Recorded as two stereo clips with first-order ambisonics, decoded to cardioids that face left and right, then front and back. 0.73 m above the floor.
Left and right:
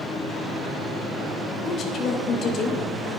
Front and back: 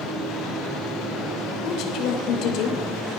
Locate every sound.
1.6 s a woman speaking: 35° left, 2.5 m